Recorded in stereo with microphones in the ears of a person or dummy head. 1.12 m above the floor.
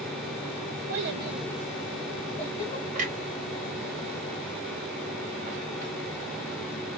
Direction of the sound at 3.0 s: 45° right (ahead or behind).